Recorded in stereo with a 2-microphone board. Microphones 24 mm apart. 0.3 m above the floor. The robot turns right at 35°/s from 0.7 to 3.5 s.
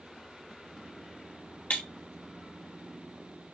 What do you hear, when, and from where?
1.7 s breaking glass: 75° left (ahead or behind), 2 m; by 1.8 s 70° left (ahead or behind), 2 m